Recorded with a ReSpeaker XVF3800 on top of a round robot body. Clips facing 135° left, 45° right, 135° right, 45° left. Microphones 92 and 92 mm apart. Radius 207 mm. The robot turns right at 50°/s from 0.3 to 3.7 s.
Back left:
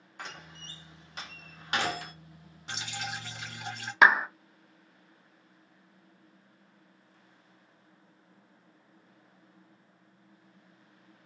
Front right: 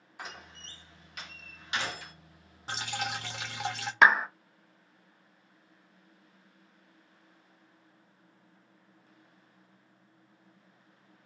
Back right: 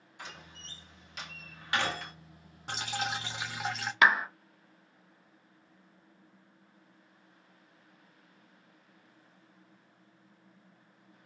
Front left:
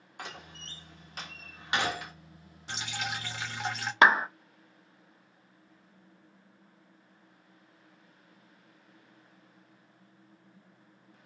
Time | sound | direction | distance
0.2 | a door slam | 40° left | 1.1 m
2.7 | dripping | 95° right | 0.6 m
4.0 | a clap | 50° left | 0.7 m